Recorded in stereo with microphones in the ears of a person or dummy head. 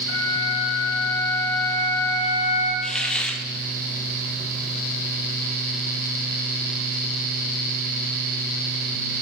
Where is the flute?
70° left (ahead or behind), 2.5 m.